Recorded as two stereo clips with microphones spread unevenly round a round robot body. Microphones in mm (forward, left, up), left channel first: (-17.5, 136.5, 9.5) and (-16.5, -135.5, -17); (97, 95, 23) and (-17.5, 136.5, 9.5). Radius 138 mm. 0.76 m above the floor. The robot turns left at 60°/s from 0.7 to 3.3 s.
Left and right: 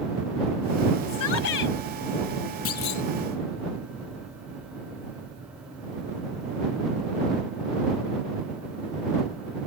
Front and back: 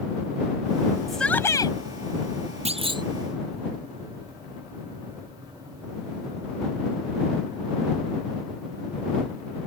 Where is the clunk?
130° left; by 3.0 s 105° left.